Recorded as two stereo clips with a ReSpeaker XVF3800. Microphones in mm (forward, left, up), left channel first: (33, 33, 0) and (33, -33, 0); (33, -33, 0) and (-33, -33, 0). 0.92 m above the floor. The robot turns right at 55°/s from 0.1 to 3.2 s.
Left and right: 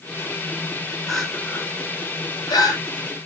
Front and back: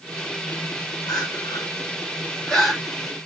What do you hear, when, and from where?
1.1 s crying: straight ahead, 4.5 m; by 2.8 s 95° left, 4.5 m